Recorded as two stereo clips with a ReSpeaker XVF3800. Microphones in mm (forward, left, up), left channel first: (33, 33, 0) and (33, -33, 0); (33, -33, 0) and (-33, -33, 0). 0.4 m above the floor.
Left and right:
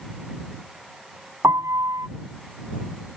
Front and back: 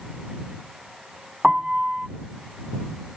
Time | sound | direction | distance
1.4 | a piano | 100° right | ?